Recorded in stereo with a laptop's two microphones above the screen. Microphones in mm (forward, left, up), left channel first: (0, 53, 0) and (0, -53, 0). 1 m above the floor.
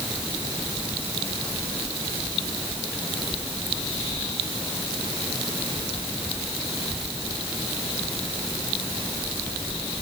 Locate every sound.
Only background noise.